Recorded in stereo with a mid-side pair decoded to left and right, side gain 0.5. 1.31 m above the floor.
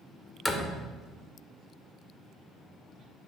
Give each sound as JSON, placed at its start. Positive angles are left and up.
{"t": 0.5, "sound": "a door slam", "azimuth_deg": 5, "distance_m": 0.8}